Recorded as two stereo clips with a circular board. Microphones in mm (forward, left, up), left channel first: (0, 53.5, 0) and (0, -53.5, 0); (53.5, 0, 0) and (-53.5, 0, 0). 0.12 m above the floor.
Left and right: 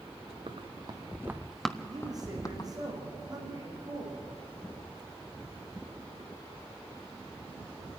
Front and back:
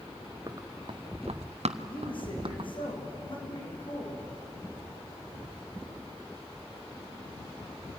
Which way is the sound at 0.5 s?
120° right.